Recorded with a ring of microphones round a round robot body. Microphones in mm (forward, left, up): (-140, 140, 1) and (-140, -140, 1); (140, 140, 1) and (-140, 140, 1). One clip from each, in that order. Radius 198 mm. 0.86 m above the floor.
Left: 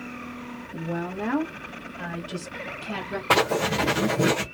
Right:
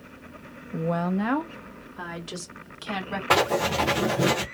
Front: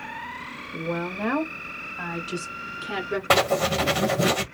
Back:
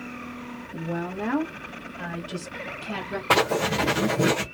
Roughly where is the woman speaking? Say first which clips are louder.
Right 4 dB, front 2 dB; right.